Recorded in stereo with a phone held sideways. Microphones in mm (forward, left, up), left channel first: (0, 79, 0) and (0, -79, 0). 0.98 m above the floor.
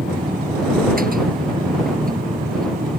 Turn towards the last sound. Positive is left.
turn(degrees=-70)  # may be behind; listen again after turning